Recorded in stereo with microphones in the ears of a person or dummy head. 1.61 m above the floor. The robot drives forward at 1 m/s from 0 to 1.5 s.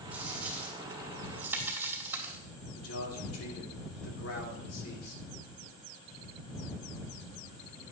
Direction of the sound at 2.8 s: 85° left.